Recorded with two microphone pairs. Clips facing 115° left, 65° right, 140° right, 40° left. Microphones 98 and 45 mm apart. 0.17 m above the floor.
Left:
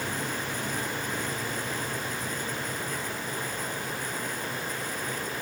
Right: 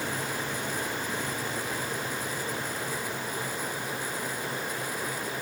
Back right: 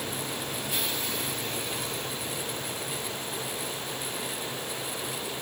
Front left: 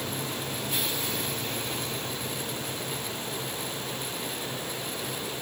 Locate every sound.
Only background noise.